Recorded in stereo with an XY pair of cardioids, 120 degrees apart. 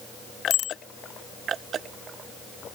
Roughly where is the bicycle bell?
Ahead left.